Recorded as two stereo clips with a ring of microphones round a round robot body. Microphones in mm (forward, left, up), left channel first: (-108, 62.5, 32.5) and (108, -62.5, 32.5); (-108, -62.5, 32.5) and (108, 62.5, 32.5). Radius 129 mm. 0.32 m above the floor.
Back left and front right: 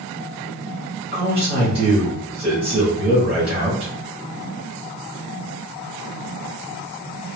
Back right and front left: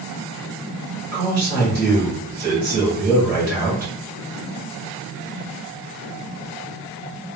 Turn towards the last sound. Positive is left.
turn(degrees=25)